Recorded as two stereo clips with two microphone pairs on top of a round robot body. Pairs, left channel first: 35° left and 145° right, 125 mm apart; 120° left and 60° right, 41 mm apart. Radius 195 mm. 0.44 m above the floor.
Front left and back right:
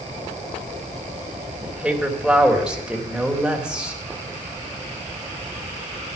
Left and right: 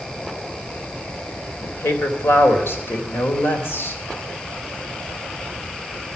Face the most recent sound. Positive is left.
turn(degrees=130)